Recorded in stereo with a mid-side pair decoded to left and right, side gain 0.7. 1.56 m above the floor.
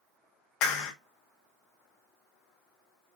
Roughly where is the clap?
Ahead left.